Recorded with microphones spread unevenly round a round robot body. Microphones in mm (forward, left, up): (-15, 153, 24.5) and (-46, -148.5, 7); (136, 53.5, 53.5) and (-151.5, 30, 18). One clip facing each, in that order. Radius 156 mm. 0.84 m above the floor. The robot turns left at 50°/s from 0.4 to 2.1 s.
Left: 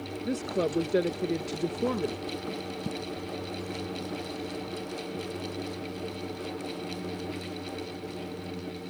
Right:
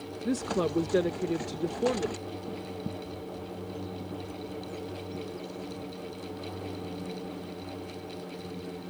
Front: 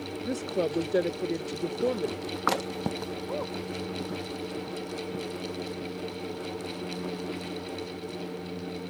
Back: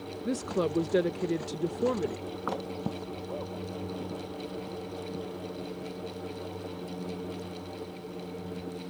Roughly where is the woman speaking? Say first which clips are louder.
Right 1 dB, even; behind right.